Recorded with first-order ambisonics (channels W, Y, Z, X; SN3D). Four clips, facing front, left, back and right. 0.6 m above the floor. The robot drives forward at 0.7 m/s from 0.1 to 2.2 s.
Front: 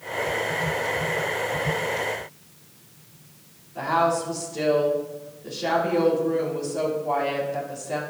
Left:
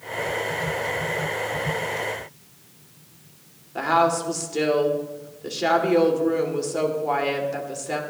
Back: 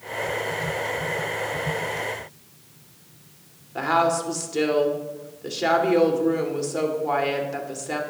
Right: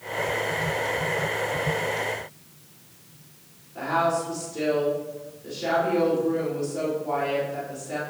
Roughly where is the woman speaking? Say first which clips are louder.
Left 4 dB, back 1 dB; behind left.